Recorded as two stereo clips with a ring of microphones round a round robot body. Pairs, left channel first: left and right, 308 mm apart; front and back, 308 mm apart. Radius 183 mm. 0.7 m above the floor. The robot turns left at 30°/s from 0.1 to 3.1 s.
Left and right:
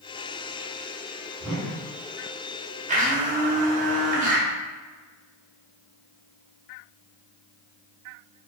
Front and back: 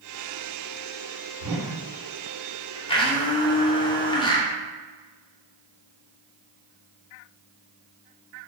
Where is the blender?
55° right, 0.8 m; by 4.5 s 60° right, 0.8 m.